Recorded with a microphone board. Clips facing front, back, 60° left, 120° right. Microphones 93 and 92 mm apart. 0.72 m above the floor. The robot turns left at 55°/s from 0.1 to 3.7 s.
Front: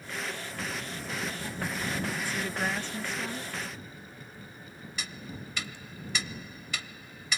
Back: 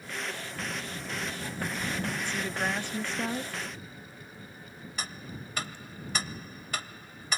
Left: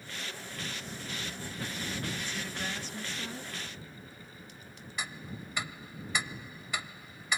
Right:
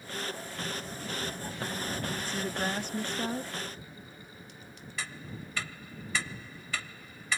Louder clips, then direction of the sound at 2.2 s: Even, right 5 dB; 75° right.